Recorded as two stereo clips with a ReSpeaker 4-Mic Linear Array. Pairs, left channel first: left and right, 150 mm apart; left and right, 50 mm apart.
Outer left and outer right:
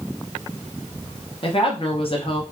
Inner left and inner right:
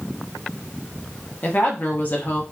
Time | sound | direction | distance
1.4 | a woman speaking | 40° left (ahead or behind) | 1.0 m